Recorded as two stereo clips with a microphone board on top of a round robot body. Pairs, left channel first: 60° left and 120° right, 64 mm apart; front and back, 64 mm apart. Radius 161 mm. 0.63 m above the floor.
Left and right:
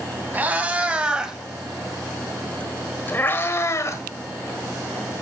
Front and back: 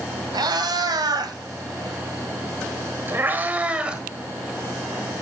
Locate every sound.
0.3 s a cat meowing: straight behind, 1.9 m; by 4.0 s 100° left, 1.6 m